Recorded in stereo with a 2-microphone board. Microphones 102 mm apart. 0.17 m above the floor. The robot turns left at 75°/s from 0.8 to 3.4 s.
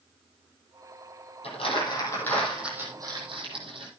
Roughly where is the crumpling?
Left.